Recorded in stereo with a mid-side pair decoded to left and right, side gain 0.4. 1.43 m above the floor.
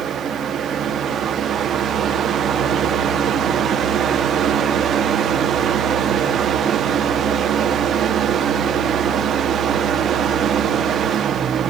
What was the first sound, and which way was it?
A fan, 65° right.